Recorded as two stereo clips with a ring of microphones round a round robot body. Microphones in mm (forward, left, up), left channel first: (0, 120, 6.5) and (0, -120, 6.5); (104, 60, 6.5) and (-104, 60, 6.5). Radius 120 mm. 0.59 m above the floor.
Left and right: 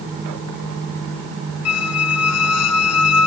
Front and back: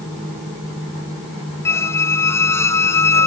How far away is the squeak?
About 0.6 m.